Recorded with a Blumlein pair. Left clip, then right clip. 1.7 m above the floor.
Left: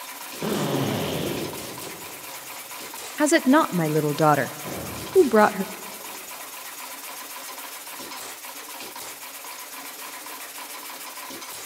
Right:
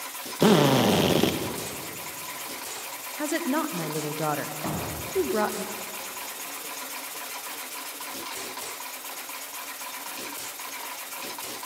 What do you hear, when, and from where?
0.4 s a drill: 60° right, 2.5 m
3.2 s a woman speaking: 30° left, 0.6 m
4.6 s a thud: 65° right, 4.5 m